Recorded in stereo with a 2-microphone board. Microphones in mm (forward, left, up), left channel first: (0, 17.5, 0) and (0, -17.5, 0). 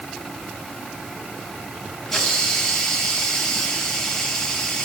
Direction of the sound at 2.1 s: 5° left (ahead or behind).